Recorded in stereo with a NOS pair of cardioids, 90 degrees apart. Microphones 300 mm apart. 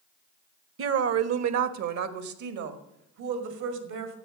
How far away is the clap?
I don't hear a clap.